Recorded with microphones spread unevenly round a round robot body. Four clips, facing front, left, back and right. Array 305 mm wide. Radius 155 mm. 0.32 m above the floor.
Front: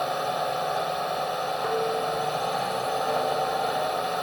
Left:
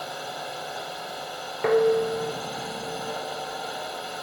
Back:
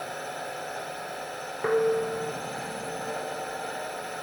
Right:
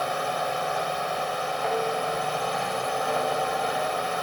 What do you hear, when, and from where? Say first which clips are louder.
0.0 s a drone: right 8 dB, front 9 dB; 40° right
1.6 s dishes clattering: left 9 dB, back 5 dB; 125° left